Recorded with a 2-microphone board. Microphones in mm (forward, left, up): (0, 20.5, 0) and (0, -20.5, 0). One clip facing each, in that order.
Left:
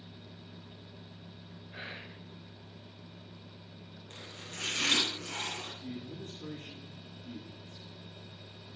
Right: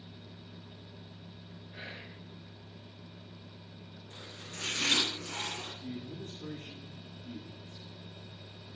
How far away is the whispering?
About 1.6 m.